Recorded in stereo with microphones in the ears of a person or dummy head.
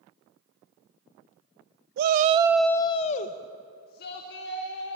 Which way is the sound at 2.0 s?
55° right (ahead or behind).